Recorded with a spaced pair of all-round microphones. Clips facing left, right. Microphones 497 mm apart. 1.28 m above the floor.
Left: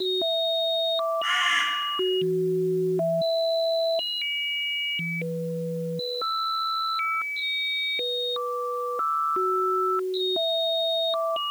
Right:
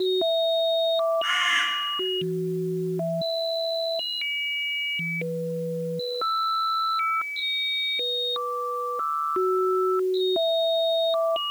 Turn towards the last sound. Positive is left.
turn(degrees=20)  # may be behind; listen again after turning